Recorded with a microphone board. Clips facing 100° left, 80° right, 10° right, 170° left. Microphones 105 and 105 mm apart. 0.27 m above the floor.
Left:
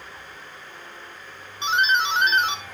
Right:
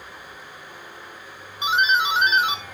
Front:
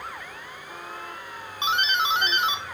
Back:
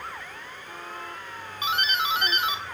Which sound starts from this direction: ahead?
A doorbell, at 1.6 s.